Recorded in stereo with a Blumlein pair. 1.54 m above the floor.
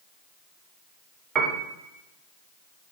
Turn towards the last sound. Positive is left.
turn(degrees=-20)